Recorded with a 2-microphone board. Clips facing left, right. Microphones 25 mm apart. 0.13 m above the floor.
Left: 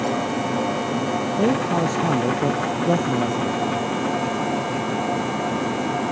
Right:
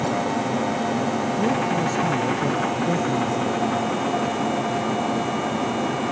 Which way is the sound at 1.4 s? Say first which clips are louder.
Left 3 dB; 45° left (ahead or behind).